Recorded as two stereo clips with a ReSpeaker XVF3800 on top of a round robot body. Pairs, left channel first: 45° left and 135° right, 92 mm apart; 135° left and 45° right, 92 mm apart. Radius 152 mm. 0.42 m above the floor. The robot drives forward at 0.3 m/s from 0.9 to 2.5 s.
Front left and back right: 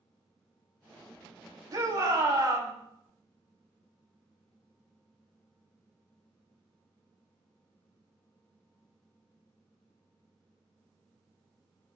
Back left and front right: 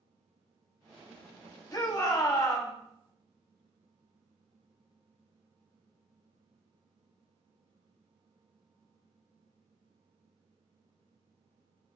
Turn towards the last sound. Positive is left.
turn(degrees=180)